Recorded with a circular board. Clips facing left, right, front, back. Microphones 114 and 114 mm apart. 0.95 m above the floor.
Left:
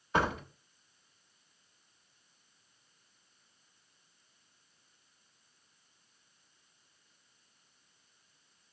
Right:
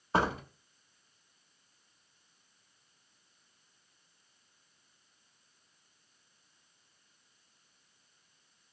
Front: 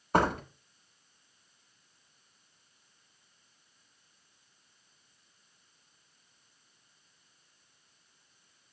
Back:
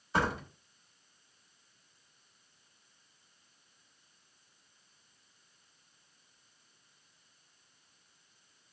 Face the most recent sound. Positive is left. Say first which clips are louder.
# right 1 dB, front 5 dB
turn(degrees=-35)